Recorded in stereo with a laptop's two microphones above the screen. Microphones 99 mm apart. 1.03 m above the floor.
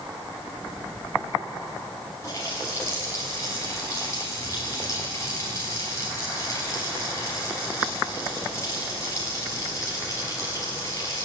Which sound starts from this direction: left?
A running tap, at 2.2 s.